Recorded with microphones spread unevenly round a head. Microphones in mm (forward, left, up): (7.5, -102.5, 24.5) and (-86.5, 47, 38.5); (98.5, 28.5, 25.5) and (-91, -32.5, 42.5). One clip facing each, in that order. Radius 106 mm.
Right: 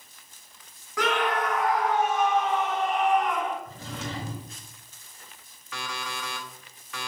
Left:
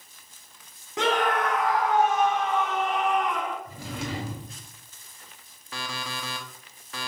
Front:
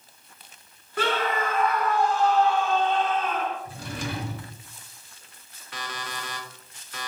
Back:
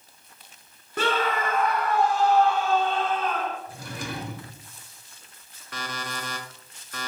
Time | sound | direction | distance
1.0 | a scream | 170° right | 1.1 m
3.6 | a drawer | 65° left | 1.5 m
5.7 | an alarm clock | 165° left | 1.6 m